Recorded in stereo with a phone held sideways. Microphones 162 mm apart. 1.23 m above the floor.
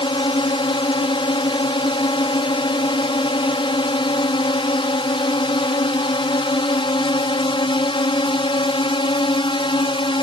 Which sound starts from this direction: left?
A drone, at 0.0 s.